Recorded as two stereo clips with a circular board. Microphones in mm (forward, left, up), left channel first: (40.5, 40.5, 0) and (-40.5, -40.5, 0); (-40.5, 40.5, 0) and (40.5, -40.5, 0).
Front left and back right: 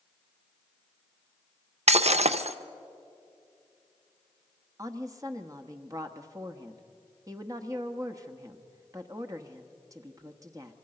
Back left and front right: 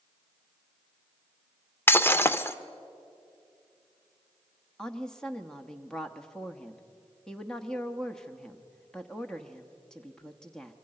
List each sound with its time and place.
1.9 s breaking glass: 155° right, 0.6 m
4.8 s a woman speaking: 145° right, 1.0 m